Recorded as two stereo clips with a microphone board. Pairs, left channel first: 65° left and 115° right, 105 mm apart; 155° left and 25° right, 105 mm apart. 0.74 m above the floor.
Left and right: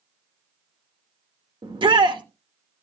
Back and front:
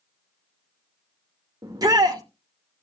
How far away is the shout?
About 1.9 m.